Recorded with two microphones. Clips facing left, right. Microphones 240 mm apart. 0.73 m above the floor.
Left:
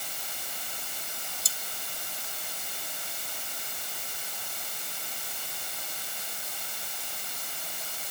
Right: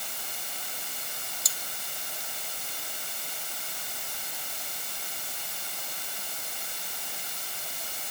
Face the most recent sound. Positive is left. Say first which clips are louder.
# even
turn(degrees=30)  # may be behind; listen again after turning